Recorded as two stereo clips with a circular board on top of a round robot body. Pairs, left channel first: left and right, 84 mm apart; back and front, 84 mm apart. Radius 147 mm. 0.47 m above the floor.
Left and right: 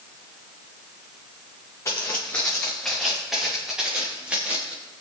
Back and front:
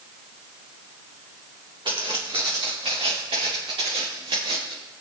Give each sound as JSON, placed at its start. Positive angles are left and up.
{"t": 1.9, "sound": "footsteps", "azimuth_deg": 30, "distance_m": 2.5}